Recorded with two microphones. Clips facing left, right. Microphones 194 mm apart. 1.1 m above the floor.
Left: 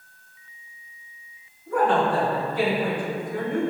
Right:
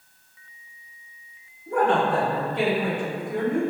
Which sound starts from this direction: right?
A woman speaking, at 1.7 s.